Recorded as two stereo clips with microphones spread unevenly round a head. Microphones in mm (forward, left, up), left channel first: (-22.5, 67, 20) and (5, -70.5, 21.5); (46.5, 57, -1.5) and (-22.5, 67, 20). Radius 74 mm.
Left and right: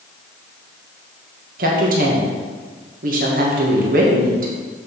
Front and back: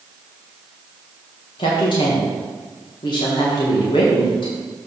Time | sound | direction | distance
1.6 | a woman speaking | 45° right | 1.8 m